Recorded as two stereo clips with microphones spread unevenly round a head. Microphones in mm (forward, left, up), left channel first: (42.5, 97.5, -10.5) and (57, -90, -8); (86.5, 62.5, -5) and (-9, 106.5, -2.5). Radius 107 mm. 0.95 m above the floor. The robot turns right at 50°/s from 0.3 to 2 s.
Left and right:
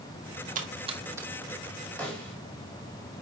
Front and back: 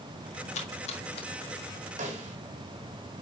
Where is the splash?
40° right, 1.7 m; by 1.3 s 5° right, 1.7 m.